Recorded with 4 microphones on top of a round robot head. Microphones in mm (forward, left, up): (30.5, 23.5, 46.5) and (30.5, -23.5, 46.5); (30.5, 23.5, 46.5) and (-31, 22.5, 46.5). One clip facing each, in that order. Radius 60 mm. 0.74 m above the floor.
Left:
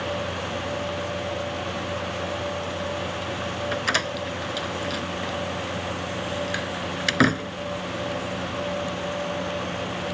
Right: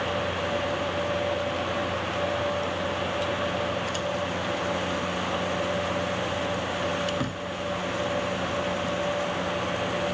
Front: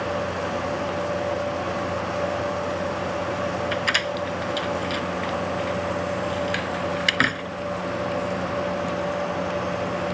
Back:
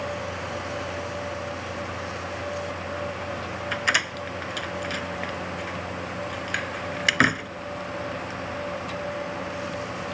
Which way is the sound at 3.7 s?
100° left.